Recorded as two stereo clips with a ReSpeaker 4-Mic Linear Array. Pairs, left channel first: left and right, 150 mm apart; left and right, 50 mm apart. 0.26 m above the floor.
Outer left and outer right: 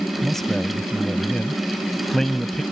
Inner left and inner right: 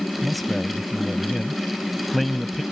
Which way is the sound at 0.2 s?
5° left (ahead or behind).